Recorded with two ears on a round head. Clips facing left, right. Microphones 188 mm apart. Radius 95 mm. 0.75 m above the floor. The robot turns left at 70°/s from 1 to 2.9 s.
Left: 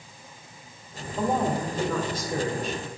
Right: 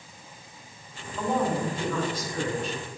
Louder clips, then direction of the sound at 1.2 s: Left 1 dB; 150° left.